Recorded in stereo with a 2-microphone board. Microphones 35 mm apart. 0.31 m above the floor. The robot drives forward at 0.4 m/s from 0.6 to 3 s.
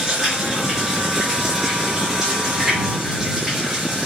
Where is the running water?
15° right (ahead or behind), 4.5 m; by 4.1 s 10° right (ahead or behind), 5.5 m.